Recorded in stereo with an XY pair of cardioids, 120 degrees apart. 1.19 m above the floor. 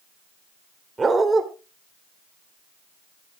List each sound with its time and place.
1.0 s a dog barking: 20° right, 1.9 m